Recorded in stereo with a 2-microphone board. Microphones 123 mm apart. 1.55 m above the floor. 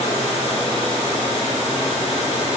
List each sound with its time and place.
Only background noise.